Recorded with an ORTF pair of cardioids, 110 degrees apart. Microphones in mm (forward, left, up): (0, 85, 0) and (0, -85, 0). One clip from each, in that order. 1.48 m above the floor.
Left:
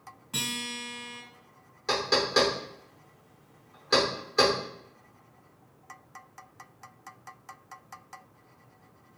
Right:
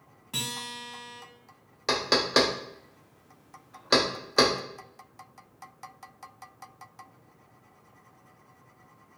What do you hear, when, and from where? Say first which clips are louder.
0.3 s a guitar: left 1 dB; 20° right, 1.1 m
1.9 s knocking: right 1 dB; 35° right, 0.6 m